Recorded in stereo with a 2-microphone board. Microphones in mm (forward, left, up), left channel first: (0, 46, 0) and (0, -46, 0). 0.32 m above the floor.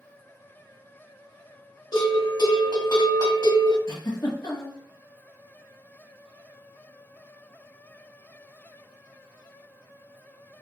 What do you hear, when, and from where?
1.9 s a bell: 60° left (ahead or behind), 1.5 m
3.9 s a giggle: 55° left (ahead or behind), 1.2 m